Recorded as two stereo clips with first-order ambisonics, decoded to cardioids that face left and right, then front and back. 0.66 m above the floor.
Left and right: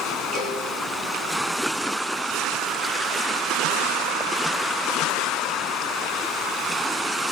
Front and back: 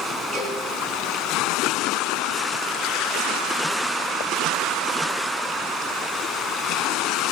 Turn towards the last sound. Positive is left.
turn(degrees=-150)